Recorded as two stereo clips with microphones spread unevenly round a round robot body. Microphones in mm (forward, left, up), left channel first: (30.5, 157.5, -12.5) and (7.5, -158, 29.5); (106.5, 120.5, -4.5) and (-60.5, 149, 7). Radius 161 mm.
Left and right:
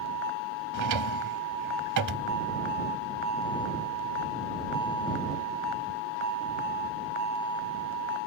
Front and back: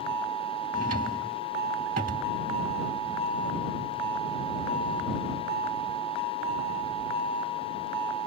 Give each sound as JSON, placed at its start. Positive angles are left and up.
{"t": 0.7, "sound": "a drawer", "azimuth_deg": -130}